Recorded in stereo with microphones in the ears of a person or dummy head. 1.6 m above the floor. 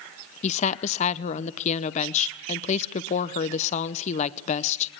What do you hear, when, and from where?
0.4 s a woman speaking: 35° left (ahead or behind), 0.7 m